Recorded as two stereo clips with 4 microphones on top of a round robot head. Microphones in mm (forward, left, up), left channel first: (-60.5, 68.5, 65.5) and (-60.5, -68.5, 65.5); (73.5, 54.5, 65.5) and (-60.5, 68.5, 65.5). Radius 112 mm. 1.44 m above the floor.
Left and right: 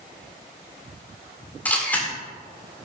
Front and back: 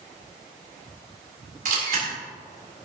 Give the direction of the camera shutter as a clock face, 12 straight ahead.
6 o'clock.